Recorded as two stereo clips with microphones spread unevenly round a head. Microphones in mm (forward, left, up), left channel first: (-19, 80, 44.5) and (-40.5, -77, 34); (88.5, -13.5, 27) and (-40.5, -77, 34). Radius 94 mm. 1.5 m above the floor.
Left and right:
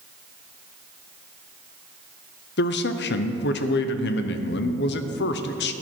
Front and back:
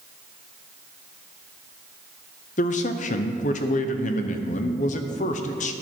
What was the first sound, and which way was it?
A man speaking, 70° left.